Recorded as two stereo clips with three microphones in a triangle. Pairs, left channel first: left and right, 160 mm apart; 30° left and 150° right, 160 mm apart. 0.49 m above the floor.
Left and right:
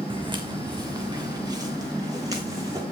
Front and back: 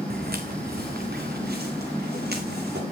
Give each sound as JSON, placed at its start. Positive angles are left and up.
{"t": 0.1, "sound": "footsteps", "azimuth_deg": -150, "distance_m": 1.5}